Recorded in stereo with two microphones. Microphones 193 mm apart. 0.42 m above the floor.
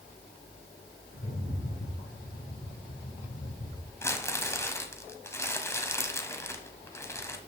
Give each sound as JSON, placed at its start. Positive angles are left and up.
{"t": 1.1, "sound": "a rattle", "side_deg": 75, "distance_m": 4.0}
{"t": 4.0, "sound": "crumpling", "side_deg": 15, "distance_m": 1.2}